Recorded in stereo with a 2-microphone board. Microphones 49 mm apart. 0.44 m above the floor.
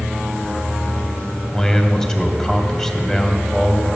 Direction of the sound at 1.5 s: 10° left (ahead or behind).